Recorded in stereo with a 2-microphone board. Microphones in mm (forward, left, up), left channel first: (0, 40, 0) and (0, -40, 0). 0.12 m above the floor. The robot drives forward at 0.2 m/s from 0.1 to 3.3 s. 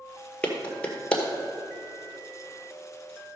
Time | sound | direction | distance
0.4 | a clap | 15° left (ahead or behind) | 1.8 m